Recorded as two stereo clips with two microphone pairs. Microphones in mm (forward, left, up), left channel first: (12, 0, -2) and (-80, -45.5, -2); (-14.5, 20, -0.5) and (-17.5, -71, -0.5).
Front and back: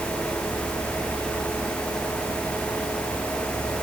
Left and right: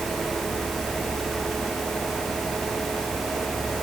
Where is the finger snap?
No finger snap in this recording.